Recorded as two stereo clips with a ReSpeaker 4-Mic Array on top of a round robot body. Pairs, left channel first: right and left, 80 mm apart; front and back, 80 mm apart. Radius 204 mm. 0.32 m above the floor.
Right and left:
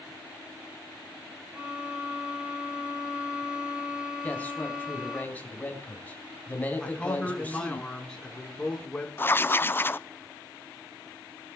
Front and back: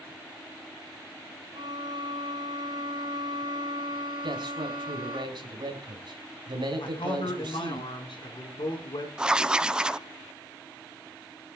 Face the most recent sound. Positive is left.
turn(degrees=-110)